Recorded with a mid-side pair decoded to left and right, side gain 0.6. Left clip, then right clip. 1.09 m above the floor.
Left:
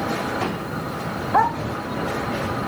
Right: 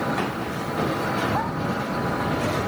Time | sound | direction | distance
1.3 | a dog barking | 50° left | ?